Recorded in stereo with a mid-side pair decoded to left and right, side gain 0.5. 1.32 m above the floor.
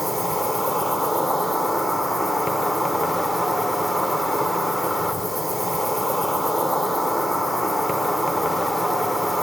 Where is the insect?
5° right, 0.9 m.